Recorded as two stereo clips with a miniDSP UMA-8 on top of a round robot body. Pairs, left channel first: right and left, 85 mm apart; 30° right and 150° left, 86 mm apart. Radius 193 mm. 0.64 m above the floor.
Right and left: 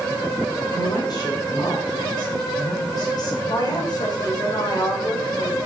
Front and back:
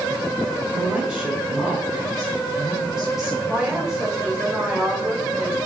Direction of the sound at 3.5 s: 130° right.